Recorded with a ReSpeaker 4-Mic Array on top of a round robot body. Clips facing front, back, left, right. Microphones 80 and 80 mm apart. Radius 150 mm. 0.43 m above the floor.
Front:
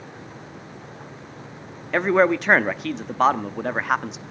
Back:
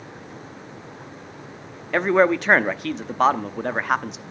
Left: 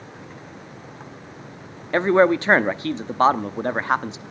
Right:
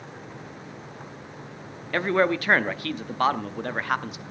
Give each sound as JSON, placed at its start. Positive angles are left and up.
{"t": 1.9, "sound": "a man speaking", "azimuth_deg": 90, "distance_m": 1.0}